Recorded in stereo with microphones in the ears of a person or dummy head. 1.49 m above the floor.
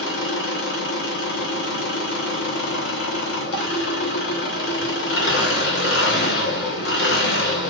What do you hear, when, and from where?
0.0 s an engine running: 60° left (ahead or behind), 0.8 m